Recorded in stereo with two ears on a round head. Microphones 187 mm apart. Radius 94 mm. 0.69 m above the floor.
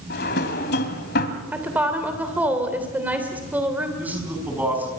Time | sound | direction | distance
0.1 | a drawer | 50° left (ahead or behind) | 1.7 m
1.5 | a woman speaking | 10° right (ahead or behind) | 3 m
4.0 | a man speaking | 10° right (ahead or behind) | 5.5 m